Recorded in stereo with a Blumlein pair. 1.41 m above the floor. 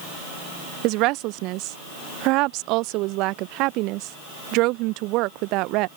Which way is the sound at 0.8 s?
40° right.